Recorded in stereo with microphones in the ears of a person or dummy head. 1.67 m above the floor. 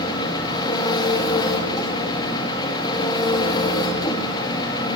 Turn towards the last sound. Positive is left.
turn(degrees=20)  # may be behind; listen again after turning